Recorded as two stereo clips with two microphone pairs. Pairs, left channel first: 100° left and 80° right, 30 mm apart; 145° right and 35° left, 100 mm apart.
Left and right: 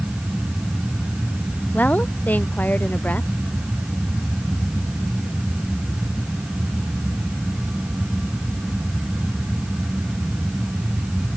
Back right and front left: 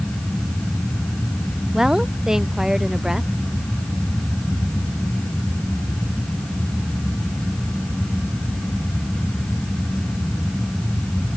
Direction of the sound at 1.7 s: 120° left.